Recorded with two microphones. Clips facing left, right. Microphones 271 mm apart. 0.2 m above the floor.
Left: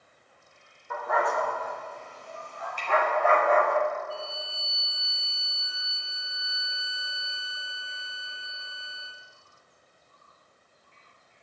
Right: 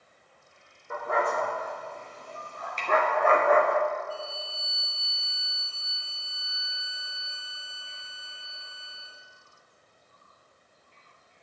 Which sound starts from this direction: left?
A violin, at 4.1 s.